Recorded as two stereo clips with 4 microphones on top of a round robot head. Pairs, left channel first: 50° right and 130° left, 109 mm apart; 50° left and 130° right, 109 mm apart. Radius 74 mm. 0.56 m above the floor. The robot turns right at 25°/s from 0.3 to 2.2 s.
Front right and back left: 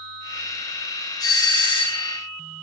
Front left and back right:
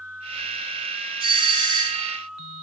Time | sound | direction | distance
1.2 | a doorbell | 100° right | 3.5 m